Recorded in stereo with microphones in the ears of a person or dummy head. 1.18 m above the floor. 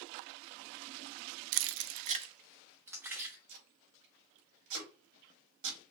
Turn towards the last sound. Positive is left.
turn(degrees=-75)  # may be behind; listen again after turning